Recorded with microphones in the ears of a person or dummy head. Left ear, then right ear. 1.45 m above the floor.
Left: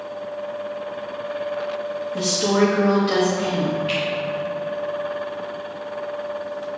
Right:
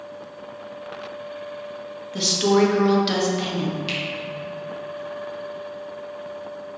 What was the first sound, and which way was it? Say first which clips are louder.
A woman speaking: right 2 dB; 40° right (ahead or behind).